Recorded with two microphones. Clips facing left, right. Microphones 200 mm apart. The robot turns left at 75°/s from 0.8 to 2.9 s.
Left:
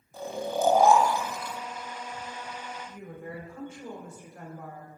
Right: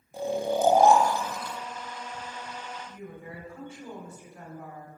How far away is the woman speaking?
About 4 m.